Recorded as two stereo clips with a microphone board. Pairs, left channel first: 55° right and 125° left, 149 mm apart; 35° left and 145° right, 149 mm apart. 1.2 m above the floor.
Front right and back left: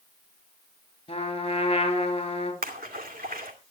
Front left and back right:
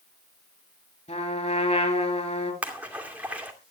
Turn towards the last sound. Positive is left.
turn(degrees=135)